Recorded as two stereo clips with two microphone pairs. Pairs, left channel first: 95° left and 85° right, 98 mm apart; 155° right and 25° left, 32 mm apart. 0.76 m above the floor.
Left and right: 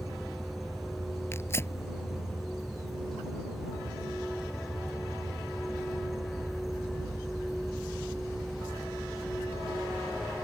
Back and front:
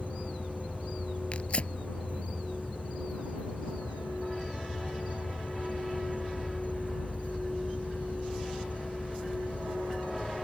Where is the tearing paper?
160° left.